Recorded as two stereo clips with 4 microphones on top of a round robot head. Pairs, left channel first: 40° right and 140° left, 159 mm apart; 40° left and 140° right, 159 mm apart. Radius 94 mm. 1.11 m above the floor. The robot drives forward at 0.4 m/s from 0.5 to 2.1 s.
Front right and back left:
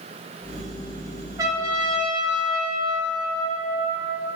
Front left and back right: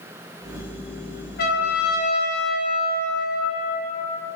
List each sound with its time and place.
1.4 s a trumpet: 70° left, 1.9 m; by 4.3 s 75° left, 1.8 m